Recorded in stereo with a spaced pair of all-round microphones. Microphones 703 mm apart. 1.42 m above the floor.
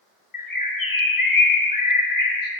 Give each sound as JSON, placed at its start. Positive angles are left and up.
{"t": 0.3, "sound": "a bird", "side_deg": 30, "distance_m": 0.8}